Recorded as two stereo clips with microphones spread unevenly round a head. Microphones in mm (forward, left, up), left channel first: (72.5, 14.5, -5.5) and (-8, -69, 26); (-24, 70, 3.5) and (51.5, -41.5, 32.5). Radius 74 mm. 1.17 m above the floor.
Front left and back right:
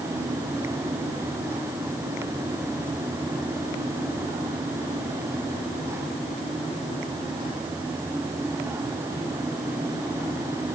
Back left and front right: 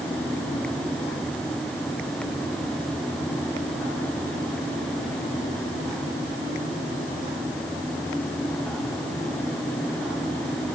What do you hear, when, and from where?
Only background noise.